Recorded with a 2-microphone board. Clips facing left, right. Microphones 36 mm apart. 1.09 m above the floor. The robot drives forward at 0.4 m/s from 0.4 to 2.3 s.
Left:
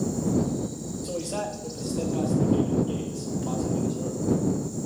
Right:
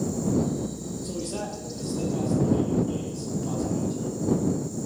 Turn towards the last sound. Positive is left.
turn(degrees=70)  # may be behind; listen again after turning